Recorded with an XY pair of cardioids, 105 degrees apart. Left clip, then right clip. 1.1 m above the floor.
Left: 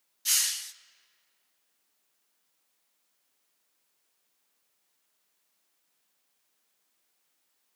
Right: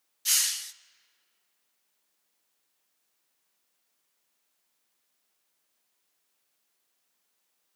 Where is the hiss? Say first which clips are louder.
Right 1 dB; 15° right, 0.6 m.